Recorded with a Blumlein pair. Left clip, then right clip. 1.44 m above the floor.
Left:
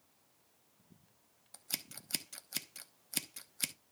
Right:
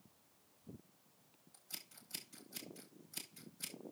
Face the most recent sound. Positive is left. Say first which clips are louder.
# left 9 dB
turn(degrees=35)